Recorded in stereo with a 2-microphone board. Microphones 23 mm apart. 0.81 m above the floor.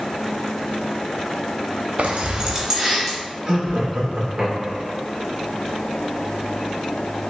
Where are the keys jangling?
80° right, 0.6 m; by 3.2 s 15° right (ahead or behind), 1.6 m.